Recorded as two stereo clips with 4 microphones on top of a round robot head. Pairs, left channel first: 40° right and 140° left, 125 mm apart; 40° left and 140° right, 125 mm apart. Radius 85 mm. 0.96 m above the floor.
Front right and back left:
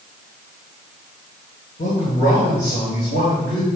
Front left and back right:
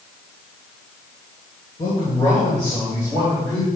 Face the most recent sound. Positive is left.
turn(degrees=-35)